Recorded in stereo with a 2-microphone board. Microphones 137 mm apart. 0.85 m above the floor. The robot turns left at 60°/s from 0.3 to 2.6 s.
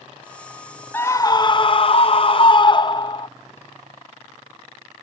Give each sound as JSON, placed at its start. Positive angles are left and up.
{"t": 0.9, "sound": "a scream", "azimuth_deg": 160}